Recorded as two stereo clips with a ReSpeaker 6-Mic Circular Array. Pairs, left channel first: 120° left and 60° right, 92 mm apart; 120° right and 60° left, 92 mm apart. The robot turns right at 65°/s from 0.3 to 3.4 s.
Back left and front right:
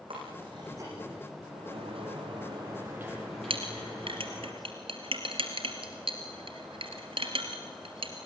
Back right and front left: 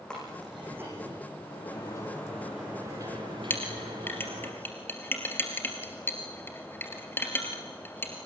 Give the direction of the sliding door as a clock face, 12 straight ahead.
3 o'clock.